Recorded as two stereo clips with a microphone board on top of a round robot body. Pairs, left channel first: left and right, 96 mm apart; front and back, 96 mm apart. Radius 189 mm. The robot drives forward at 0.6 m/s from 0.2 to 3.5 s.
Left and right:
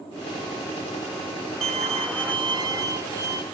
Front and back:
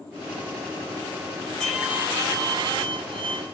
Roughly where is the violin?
Right.